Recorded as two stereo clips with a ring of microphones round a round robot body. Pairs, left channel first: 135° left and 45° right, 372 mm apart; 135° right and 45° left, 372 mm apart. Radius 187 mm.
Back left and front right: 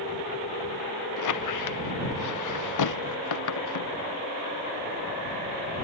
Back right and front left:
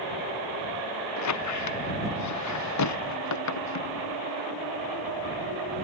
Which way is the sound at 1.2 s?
Straight behind.